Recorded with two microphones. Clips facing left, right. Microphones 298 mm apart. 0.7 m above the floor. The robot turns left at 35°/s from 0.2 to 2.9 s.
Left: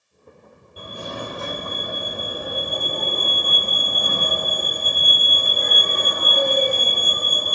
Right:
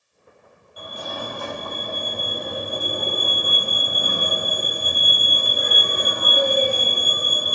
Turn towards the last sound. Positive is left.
turn(degrees=-15)